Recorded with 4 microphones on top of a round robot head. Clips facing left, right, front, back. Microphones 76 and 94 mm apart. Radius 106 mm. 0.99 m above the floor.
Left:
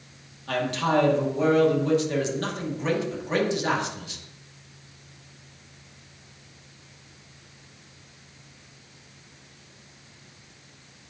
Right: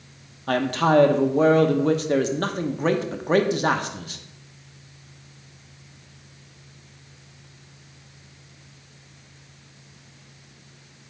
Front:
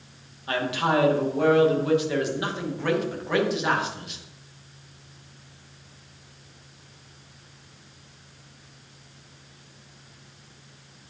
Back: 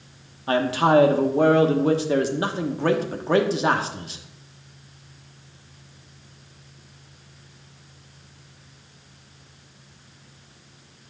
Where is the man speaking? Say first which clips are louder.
Right 5 dB, back 6 dB; 125° right, 1.0 m.